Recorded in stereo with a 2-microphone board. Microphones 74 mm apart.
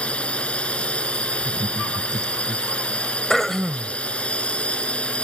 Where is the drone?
15° left (ahead or behind).